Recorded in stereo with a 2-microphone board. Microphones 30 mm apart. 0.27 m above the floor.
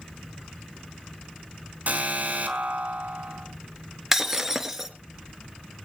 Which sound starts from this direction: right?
An alarm, at 1.9 s.